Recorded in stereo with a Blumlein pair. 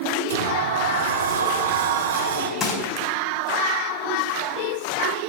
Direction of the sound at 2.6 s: 25° left.